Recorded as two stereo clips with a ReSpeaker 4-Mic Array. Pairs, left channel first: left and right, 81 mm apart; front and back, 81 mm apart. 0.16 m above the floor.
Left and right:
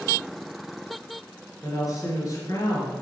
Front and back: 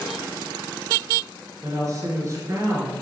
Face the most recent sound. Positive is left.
turn(degrees=135)